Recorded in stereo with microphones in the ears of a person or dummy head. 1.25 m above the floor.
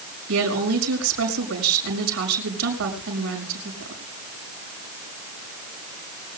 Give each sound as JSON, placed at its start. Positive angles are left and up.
{"t": 0.3, "sound": "a woman speaking", "side_deg": -80, "distance_m": 6.0}